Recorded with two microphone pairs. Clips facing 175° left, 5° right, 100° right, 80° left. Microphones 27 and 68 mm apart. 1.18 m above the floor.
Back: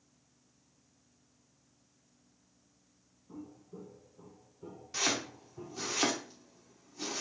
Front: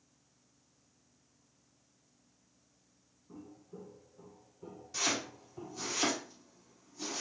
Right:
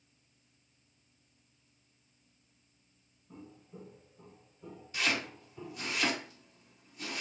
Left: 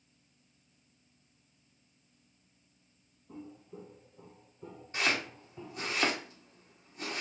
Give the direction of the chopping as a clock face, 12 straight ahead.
8 o'clock.